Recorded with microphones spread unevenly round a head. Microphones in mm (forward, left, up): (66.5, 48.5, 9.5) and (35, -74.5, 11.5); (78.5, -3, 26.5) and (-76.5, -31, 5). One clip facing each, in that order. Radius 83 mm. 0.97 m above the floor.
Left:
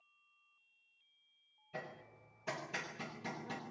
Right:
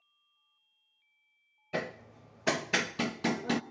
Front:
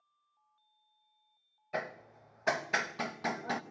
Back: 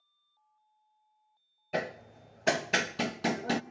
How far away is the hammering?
About 0.8 m.